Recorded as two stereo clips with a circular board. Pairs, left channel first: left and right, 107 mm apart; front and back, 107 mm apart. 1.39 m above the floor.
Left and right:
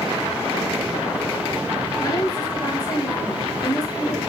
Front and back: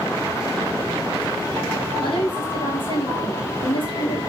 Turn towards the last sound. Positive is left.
turn(degrees=35)